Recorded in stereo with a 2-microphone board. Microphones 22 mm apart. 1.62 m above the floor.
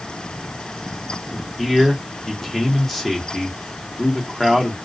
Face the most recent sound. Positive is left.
turn(degrees=10)  # may be behind; listen again after turning